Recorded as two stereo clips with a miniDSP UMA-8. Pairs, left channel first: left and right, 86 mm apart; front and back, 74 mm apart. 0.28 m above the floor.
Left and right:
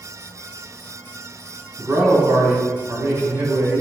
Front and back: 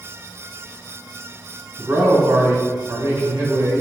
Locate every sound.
1.8 s a man speaking: 150° right, 3 m